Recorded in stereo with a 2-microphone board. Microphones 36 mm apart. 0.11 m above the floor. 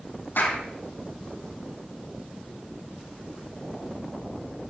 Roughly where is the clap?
Left.